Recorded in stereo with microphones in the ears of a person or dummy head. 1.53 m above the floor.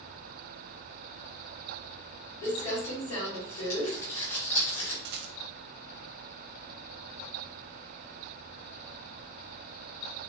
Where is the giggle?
No giggle in this recording.